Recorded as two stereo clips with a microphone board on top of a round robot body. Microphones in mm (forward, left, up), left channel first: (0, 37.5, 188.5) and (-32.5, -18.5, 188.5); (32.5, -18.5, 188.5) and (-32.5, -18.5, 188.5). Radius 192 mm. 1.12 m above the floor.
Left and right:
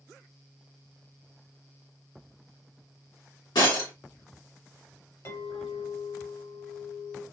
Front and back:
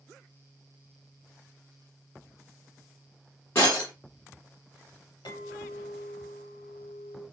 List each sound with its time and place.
3.5 s breaking glass: 60° left, 1.7 m
5.2 s a clink: 10° left, 1.0 m